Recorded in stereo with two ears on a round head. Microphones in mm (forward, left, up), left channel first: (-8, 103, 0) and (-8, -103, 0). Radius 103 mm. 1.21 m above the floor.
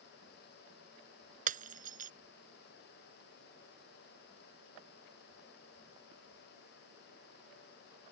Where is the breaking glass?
35° right (ahead or behind).